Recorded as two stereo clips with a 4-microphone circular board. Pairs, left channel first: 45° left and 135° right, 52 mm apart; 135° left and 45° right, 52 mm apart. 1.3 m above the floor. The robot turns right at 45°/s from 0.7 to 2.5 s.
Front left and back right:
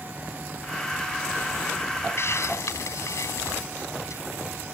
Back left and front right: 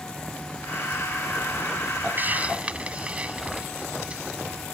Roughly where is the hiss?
Ahead.